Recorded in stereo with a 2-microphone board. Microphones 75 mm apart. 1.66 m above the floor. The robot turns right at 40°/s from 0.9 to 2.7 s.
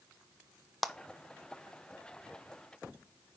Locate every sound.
0.8 s a clap: centre (ahead or behind), 0.7 m